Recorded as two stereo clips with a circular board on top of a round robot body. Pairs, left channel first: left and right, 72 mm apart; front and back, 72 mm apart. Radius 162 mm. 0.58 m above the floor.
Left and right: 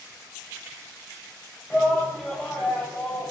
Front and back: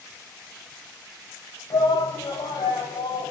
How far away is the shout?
About 4.5 m.